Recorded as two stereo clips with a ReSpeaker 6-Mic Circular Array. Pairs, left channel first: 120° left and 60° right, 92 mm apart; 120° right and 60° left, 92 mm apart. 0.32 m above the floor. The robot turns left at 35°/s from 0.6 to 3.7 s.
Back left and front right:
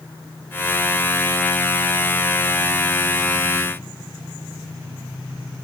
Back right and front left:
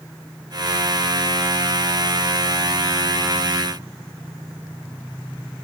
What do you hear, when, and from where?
Only background noise.